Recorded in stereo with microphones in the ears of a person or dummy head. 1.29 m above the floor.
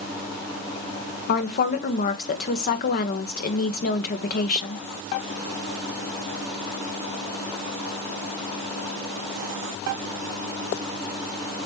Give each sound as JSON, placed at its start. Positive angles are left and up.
{"t": 1.3, "sound": "a woman speaking", "side_deg": 45, "distance_m": 1.5}